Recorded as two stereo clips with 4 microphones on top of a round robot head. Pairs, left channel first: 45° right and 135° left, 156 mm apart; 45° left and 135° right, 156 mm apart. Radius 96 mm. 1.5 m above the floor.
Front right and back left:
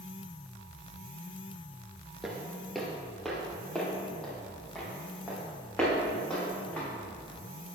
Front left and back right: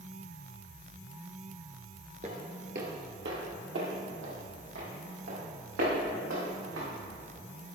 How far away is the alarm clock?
No alarm clock in this recording.